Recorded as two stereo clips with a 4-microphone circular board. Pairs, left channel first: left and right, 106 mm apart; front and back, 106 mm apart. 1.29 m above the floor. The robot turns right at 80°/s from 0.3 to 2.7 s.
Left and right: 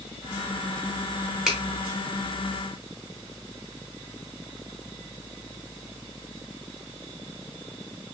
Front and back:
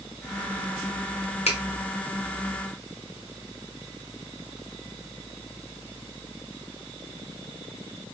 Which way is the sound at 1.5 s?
5° right.